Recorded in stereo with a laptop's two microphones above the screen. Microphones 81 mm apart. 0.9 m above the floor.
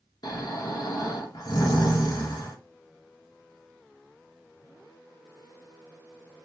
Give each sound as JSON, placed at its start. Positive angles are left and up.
{"t": 0.2, "sound": "snoring", "side_deg": 55, "distance_m": 1.1}